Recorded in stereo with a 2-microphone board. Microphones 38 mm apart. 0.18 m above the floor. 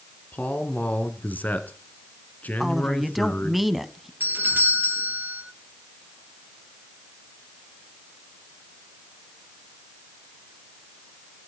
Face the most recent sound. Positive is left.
turn(degrees=-65)  # may be behind; listen again after turning